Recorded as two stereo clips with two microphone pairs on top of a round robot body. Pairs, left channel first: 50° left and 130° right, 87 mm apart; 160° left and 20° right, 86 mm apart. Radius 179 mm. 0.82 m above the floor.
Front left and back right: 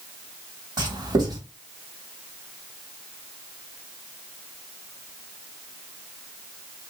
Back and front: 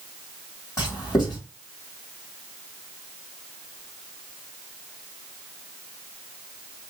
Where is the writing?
155° right, 3 m.